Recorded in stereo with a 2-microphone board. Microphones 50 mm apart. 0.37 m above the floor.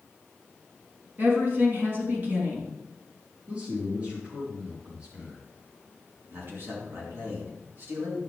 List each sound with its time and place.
1.2 s a woman speaking: 40° right (ahead or behind), 4.5 m
3.5 s a man speaking: 30° right (ahead or behind), 6.5 m
6.3 s a man speaking: 45° right (ahead or behind), 5 m